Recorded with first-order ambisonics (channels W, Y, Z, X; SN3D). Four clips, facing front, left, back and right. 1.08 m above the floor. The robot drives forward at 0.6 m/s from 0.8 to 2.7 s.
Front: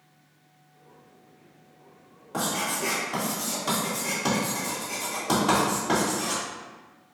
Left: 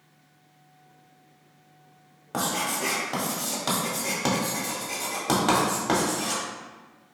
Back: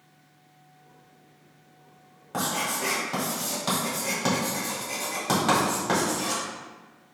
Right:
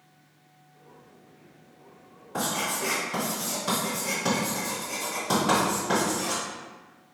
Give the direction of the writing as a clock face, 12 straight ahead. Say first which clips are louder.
Left 1 dB, even; 9 o'clock.